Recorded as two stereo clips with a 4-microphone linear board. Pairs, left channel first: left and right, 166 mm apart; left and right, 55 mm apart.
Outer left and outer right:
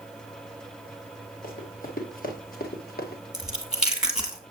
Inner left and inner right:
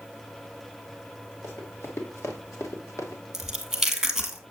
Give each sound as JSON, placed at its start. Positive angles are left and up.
{"t": 1.4, "sound": "running footsteps", "side_deg": 55, "distance_m": 3.0}
{"t": 3.3, "sound": "chewing", "side_deg": -5, "distance_m": 2.0}